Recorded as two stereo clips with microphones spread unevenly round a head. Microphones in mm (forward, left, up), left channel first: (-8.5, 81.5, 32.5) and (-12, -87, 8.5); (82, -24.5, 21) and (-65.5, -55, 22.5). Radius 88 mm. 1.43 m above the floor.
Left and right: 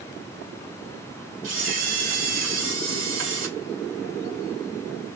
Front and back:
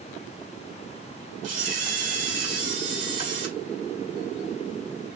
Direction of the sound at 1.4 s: 130° right.